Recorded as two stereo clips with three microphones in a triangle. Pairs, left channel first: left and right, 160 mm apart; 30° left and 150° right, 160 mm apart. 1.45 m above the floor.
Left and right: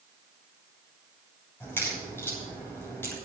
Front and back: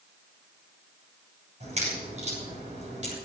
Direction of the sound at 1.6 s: 165° left.